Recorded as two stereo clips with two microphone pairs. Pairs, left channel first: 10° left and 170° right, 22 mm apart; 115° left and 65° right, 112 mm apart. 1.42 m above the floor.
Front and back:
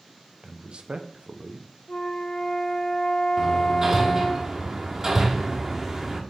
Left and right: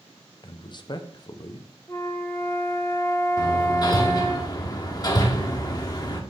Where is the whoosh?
No whoosh in this recording.